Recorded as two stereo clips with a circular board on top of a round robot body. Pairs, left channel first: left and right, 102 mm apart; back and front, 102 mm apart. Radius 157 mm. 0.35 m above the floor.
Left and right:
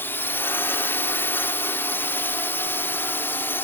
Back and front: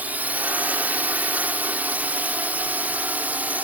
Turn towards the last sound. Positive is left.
turn(degrees=55)